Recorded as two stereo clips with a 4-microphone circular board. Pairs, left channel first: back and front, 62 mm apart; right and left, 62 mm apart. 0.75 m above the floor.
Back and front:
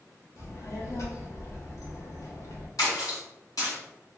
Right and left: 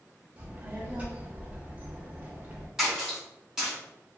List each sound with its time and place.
0.4 s a child speaking: 155° left, 0.8 m
2.8 s a splash: 170° left, 1.8 m